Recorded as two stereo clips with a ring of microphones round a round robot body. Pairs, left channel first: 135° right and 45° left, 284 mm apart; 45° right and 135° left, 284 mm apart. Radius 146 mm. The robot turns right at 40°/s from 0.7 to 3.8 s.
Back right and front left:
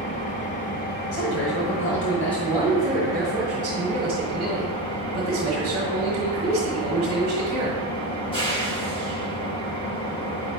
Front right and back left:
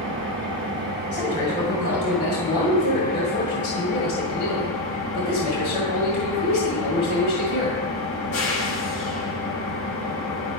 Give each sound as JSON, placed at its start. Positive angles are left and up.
{"t": 0.0, "sound": "an engine running", "azimuth_deg": 170, "distance_m": 1.2}
{"t": 1.1, "sound": "a man speaking", "azimuth_deg": -130, "distance_m": 1.9}